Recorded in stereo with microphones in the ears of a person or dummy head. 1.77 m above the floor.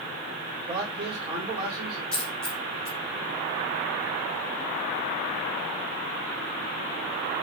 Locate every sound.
0.7 s a man speaking: 30° right (ahead or behind), 4.5 m; by 2.0 s 25° right (ahead or behind), 4 m
2.1 s a dropped coin: 10° left (ahead or behind), 1.2 m